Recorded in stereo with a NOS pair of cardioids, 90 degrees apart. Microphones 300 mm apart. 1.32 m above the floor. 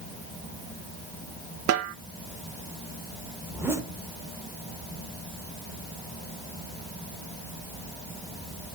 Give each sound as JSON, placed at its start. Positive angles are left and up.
{"t": 1.7, "sound": "a snare drum", "azimuth_deg": -50, "distance_m": 1.0}
{"t": 3.5, "sound": "a zipper", "azimuth_deg": -10, "distance_m": 2.0}